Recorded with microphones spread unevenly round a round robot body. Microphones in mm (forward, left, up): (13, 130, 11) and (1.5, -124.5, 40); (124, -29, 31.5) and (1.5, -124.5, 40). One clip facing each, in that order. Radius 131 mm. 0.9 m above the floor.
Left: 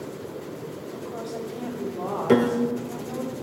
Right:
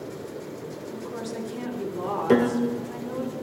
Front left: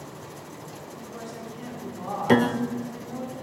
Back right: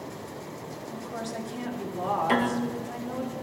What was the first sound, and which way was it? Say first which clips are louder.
A woman speaking: right 1 dB, back right 5 dB; 150° right.